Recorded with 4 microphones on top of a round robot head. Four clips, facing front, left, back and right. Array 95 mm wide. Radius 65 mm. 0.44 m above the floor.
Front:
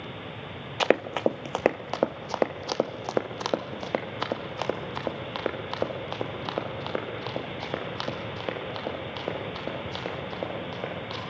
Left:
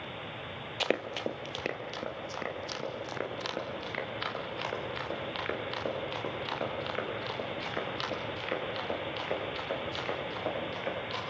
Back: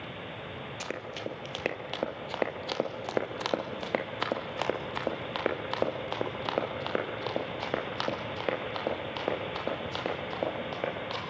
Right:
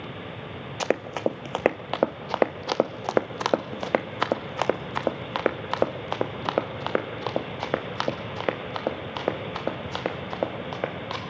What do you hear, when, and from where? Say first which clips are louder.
0.8 s running footsteps: right 6 dB, front 16 dB; 20° right, 0.7 m; by 11.2 s 95° right, 5.5 m